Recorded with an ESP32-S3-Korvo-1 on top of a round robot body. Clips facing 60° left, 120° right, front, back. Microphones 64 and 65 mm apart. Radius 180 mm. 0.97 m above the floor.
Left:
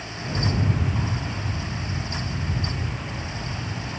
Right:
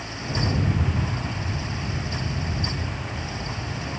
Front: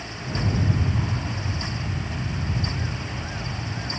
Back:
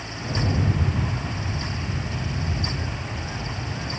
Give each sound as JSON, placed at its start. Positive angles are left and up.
{"t": 0.1, "sound": "a rattle", "azimuth_deg": 130, "distance_m": 2.5}